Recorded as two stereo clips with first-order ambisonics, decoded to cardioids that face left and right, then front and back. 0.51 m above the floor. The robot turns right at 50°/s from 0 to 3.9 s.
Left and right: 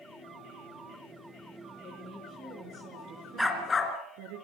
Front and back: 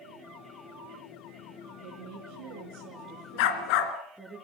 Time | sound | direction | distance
1.8 | a woman speaking | 165° left | 5.5 m
3.4 | a dog barking | straight ahead | 2.5 m